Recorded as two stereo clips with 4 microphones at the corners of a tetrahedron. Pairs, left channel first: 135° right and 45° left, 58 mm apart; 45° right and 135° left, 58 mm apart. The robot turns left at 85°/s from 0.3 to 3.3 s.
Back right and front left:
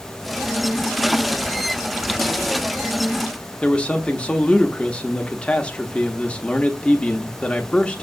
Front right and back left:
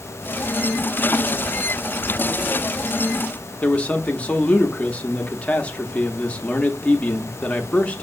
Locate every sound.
3.6 s a man speaking: 85° right, 0.6 m